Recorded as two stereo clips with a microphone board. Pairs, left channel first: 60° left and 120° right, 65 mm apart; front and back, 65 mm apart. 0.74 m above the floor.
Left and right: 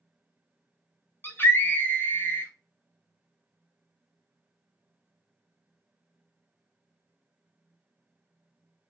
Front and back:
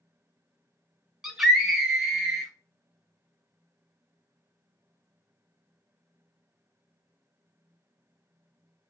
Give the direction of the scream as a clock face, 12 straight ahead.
9 o'clock.